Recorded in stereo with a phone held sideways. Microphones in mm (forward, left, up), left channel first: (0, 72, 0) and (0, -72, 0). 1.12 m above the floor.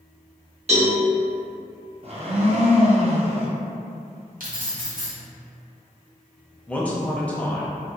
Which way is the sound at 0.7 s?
50° right (ahead or behind).